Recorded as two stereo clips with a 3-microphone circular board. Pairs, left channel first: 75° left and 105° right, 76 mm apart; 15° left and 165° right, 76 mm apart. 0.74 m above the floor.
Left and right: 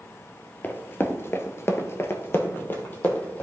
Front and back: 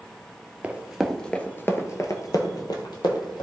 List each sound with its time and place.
0.6 s running footsteps: 130° left, 0.9 m; by 3.4 s 10° left, 1.8 m